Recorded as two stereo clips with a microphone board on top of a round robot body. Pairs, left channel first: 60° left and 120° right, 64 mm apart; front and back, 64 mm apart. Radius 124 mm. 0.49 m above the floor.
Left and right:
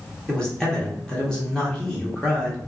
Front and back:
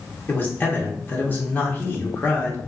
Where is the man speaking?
10° right, 1.1 m.